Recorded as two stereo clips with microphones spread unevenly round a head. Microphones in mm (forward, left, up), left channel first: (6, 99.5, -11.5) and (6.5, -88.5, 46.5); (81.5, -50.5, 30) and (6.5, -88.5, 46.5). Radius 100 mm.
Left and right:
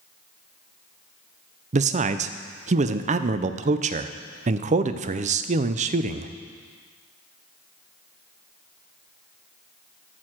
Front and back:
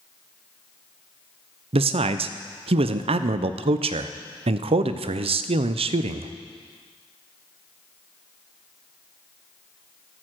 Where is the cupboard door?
I don't hear a cupboard door.